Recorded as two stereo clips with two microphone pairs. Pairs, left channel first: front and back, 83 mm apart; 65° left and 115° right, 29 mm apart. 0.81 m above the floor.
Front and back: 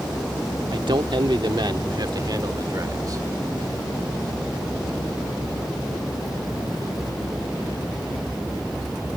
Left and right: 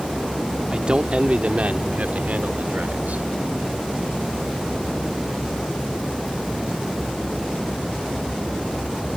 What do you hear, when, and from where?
0.7 s a man speaking: 170° right; by 3.2 s 135° right